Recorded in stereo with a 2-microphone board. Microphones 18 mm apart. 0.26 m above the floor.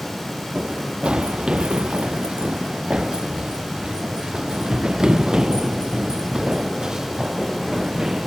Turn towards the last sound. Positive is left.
turn(degrees=-30)  # may be behind; listen again after turning